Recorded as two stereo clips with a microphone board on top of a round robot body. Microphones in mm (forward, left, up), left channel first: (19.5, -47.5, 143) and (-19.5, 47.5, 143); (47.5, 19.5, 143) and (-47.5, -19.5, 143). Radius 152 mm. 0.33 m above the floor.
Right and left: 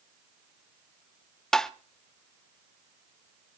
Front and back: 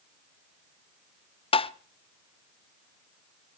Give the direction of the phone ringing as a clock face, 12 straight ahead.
I don't hear a phone ringing.